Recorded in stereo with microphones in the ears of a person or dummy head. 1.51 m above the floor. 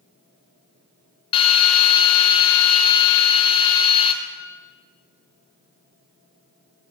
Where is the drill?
30° left (ahead or behind), 0.7 m.